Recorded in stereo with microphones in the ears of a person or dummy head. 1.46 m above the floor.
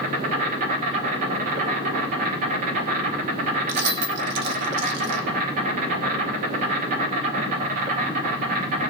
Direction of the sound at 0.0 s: 40° right (ahead or behind).